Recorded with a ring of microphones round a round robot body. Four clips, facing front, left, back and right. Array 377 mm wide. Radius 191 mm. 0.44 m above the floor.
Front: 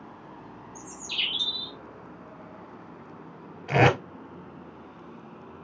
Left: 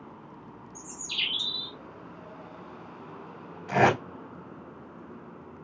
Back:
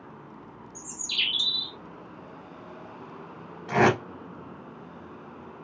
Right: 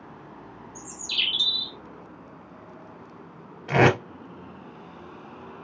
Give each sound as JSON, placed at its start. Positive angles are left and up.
{"t": 0.8, "sound": "a bird", "azimuth_deg": -160, "distance_m": 1.1}
{"t": 3.7, "sound": "tape being pulled", "azimuth_deg": -55, "distance_m": 2.5}